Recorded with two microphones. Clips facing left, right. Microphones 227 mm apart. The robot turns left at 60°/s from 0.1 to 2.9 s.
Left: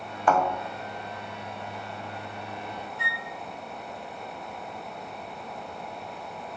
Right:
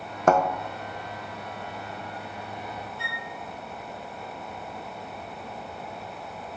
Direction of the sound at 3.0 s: 75° left (ahead or behind).